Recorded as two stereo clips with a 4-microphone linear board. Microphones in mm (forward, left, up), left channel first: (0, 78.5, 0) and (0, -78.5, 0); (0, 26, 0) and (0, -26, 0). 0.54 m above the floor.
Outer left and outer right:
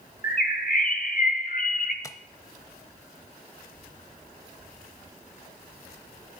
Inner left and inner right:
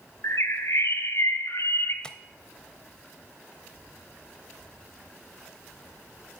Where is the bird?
65° left (ahead or behind), 1.3 m.